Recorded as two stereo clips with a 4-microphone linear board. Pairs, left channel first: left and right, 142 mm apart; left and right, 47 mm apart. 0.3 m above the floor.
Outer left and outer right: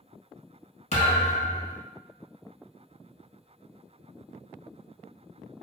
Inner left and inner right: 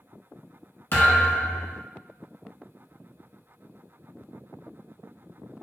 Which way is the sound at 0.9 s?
55° left (ahead or behind).